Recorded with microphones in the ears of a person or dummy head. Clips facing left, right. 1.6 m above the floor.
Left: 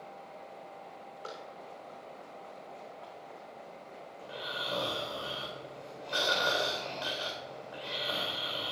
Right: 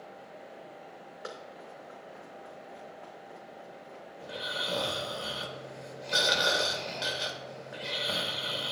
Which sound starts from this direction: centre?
Running footsteps, at 1.2 s.